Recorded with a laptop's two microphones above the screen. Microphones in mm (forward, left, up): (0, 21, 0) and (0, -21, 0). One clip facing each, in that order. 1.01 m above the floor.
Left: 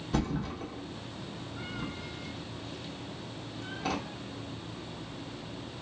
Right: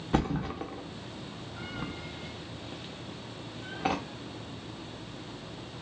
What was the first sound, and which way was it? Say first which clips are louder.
A thud: right 3 dB; 30° right (ahead or behind).